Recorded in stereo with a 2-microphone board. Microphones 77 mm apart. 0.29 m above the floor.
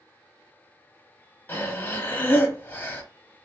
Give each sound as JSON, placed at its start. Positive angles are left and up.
{"t": 1.5, "sound": "breathing", "side_deg": 25, "distance_m": 0.7}